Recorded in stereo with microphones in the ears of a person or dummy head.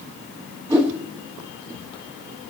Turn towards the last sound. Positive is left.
turn(degrees=-15)  # may be behind; listen again after turning